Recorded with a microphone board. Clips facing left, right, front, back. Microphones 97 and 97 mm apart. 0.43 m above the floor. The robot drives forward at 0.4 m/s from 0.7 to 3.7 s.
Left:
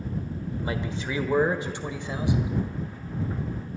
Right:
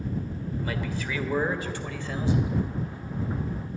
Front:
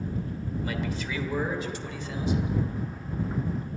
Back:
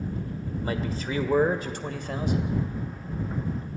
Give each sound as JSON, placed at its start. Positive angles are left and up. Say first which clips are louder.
{"t": 0.6, "sound": "a man speaking", "louder": "left 2 dB, back 3 dB", "azimuth_deg": 145, "distance_m": 1.3}